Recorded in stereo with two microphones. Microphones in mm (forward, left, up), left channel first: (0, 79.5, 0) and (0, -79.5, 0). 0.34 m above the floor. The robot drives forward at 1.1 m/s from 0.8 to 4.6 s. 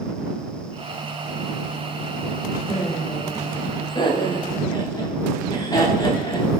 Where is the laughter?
40° left (ahead or behind), 1.7 m; by 6.5 s 25° left (ahead or behind), 3 m.